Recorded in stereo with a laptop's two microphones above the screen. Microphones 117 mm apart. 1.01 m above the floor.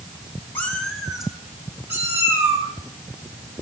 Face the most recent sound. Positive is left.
turn(degrees=-25)  # may be behind; listen again after turning